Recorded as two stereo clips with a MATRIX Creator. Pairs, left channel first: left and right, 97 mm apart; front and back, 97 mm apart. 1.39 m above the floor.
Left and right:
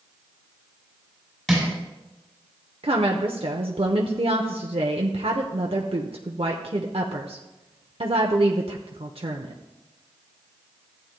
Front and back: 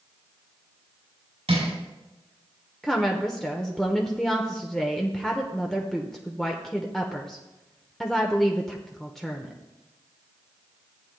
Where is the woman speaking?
85° right, 0.7 m.